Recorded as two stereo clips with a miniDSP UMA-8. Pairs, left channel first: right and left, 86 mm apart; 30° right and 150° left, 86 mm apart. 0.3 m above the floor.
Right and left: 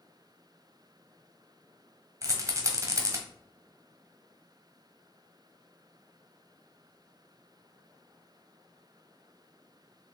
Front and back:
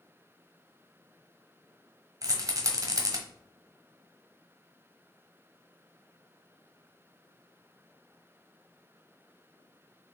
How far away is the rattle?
About 1.0 m.